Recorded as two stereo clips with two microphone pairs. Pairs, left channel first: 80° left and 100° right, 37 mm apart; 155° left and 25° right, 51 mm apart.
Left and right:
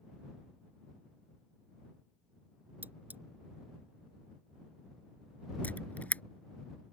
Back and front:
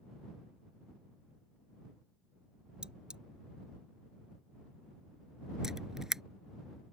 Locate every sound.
2.8 s cutlery clinking: 95° right
5.6 s a camera shutter: 50° left